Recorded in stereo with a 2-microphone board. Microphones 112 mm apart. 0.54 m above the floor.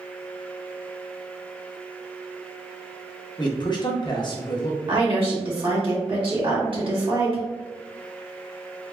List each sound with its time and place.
3.4 s a man speaking: 40° left (ahead or behind), 0.8 m
4.9 s a woman speaking: 55° right (ahead or behind), 1.5 m